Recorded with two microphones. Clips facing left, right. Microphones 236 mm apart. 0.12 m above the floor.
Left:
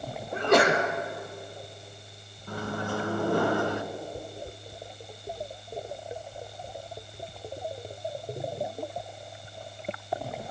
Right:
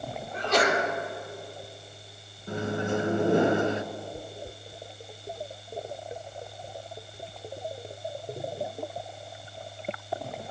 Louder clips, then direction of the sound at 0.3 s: Left 4 dB; 60° left (ahead or behind).